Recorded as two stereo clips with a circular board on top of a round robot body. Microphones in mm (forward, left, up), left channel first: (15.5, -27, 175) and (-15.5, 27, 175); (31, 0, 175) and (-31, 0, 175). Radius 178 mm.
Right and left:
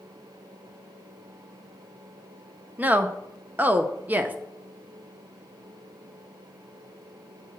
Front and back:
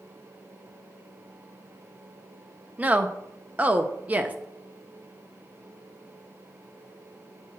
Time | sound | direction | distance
2.8 | a woman speaking | 145° left | 0.9 m